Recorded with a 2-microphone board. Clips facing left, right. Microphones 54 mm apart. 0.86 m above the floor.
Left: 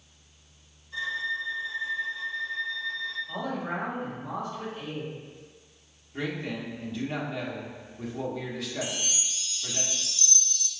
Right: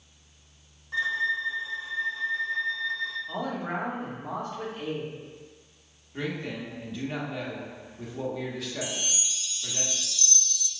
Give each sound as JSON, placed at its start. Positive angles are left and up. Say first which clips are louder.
{"t": 0.9, "sound": "a violin", "louder": "right 4 dB", "side_deg": -55, "distance_m": 1.0}
{"t": 3.3, "sound": "a man speaking", "louder": "right 1 dB", "side_deg": -40, "distance_m": 1.8}
{"t": 6.1, "sound": "a man speaking", "louder": "even", "side_deg": 0, "distance_m": 1.2}
{"t": 8.8, "sound": "a chime", "louder": "even", "side_deg": 45, "distance_m": 0.7}